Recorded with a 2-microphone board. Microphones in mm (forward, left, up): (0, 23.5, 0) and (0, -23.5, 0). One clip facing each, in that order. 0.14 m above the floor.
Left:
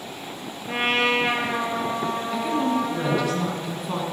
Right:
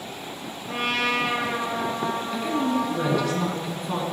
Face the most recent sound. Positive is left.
turn(degrees=0)  # may be behind; listen again after turning